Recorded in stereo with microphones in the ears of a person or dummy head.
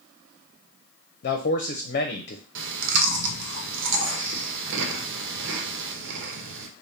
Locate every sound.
1.2 s a man speaking: 45° left (ahead or behind), 0.6 m
2.5 s chewing: 70° right (ahead or behind), 0.9 m